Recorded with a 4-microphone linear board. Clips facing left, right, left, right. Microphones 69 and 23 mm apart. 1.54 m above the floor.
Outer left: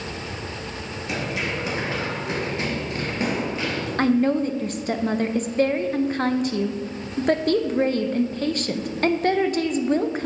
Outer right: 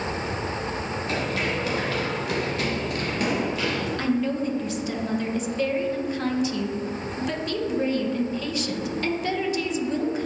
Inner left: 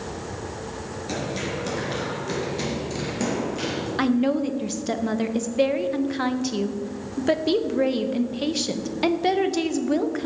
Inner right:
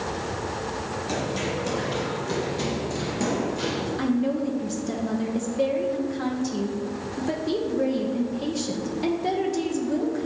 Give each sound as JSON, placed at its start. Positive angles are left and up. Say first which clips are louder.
{"t": 1.1, "sound": "running footsteps", "louder": "outer left 1 dB, even", "side_deg": 15, "distance_m": 1.7}
{"t": 4.0, "sound": "a woman speaking", "louder": "outer left 7 dB, inner left 4 dB", "side_deg": 50, "distance_m": 0.6}